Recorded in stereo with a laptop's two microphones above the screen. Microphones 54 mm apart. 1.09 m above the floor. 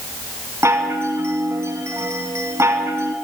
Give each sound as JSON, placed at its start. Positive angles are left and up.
{"t": 0.6, "sound": "a chime", "side_deg": -60, "distance_m": 2.0}